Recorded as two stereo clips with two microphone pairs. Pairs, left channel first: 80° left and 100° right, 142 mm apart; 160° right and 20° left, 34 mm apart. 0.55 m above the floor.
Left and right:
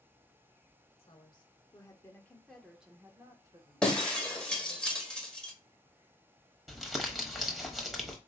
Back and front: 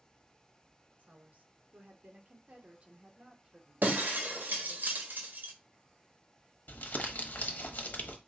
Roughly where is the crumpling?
Behind.